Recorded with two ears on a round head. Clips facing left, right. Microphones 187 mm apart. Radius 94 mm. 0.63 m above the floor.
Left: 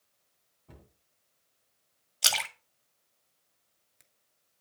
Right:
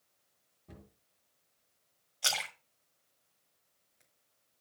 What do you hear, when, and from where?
0.7 s a cupboard door: 20° right (ahead or behind), 2.5 m
2.2 s a splash: 45° left (ahead or behind), 1.7 m